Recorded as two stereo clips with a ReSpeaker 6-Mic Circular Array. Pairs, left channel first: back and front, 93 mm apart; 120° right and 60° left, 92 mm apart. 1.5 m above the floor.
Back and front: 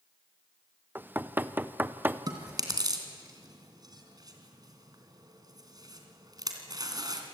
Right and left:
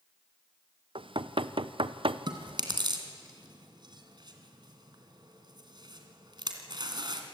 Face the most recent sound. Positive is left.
turn(degrees=35)